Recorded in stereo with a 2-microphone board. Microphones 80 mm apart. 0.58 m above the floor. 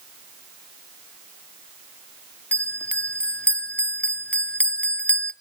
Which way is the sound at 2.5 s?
20° left (ahead or behind).